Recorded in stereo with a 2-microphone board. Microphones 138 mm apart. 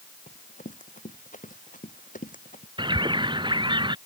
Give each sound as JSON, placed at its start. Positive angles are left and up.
{"t": 0.3, "sound": "running footsteps", "side_deg": 65}
{"t": 2.8, "sound": "a bird", "side_deg": -35}